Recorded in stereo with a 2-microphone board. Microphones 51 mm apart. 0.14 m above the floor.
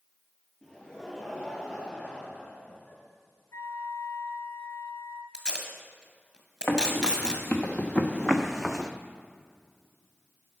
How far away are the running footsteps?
About 1.5 m.